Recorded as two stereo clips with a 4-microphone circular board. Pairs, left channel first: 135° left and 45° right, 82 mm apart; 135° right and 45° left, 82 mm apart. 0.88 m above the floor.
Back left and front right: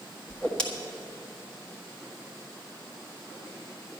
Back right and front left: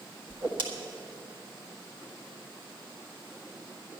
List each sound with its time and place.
0.3 s a whoosh: 60° left, 1.6 m